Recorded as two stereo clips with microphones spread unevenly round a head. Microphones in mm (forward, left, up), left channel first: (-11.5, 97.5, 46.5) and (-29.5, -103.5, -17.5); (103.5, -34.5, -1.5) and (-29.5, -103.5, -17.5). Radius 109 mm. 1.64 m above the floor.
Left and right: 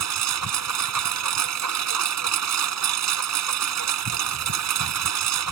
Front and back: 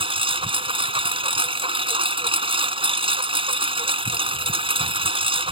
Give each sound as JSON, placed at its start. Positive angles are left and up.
{"t": 0.0, "sound": "a lawn mower", "azimuth_deg": -100}